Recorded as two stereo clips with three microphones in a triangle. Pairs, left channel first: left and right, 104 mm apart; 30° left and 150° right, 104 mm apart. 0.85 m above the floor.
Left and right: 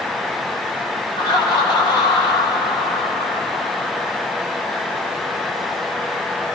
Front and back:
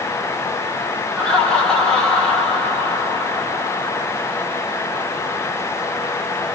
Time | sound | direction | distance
1.2 | laughter | 110° left | 1.5 m